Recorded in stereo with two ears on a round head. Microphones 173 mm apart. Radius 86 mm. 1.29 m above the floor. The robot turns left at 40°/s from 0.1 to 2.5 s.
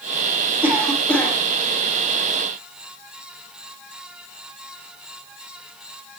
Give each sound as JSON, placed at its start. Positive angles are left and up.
{"t": 0.6, "sound": "a cough", "side_deg": -10, "distance_m": 7.0}